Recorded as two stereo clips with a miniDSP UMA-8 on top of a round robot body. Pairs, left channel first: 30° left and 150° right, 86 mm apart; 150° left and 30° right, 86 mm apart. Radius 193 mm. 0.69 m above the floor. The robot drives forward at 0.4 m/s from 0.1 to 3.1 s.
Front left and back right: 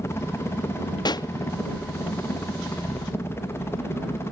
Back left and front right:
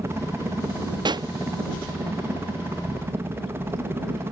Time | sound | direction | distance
0.0 | a helicopter | straight ahead | ?
1.1 | a pop | 5° right | ?